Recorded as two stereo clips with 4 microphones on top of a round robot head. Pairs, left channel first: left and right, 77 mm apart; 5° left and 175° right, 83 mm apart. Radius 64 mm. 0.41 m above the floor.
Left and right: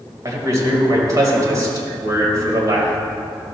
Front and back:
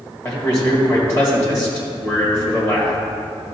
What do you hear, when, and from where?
0.2 s a man speaking: 50° right, 2.5 m